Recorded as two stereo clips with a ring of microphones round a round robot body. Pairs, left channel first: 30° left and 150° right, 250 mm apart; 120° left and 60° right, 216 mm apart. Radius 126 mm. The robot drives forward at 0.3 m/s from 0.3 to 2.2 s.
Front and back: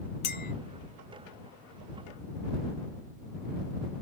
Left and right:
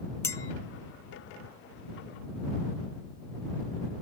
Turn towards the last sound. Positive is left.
turn(degrees=145)